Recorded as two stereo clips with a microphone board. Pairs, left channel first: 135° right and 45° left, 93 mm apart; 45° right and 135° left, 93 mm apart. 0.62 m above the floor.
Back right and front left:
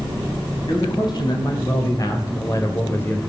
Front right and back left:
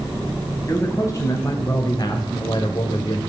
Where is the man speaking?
100° right, 4 m; by 3.2 s 70° right, 2 m.